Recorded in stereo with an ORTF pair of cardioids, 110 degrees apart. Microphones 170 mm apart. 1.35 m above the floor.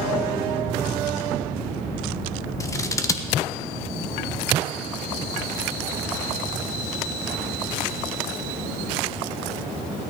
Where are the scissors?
20° left, 1.3 m.